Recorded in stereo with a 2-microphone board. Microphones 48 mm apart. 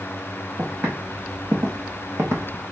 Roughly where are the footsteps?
Right.